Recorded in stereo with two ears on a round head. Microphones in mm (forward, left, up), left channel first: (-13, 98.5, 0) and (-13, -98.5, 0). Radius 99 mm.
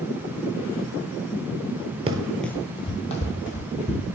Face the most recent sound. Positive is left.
turn(degrees=40)  # may be behind; listen again after turning